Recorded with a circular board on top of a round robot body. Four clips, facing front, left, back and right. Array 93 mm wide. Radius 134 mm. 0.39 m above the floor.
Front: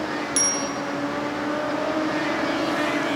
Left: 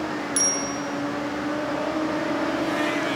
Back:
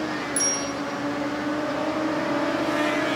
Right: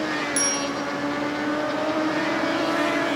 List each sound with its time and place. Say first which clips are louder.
0.4 s a bicycle bell: right 2 dB, front 2 dB; 5° left, 3.5 m